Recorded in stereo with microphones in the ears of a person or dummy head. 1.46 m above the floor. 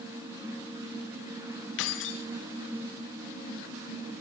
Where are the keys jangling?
70° left (ahead or behind), 1.0 m.